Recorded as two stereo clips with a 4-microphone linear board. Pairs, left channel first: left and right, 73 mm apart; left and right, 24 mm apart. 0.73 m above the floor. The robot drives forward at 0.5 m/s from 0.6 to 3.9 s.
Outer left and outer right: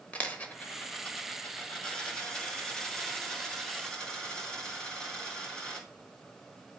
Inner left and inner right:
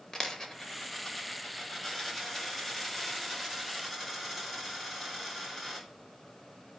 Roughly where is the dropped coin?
Left.